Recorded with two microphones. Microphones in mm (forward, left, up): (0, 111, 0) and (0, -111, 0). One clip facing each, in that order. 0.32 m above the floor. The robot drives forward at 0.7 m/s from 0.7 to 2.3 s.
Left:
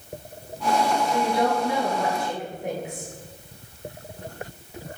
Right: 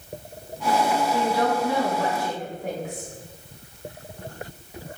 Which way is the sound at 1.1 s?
20° left (ahead or behind).